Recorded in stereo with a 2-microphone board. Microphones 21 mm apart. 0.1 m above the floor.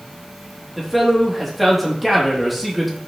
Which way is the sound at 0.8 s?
5° left (ahead or behind).